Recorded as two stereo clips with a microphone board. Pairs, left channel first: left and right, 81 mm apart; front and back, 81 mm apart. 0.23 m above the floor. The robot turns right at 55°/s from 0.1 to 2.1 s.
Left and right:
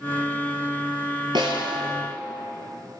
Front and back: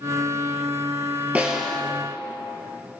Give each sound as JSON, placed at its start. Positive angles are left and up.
{"t": 1.4, "sound": "a snare drum", "azimuth_deg": -110, "distance_m": 1.6}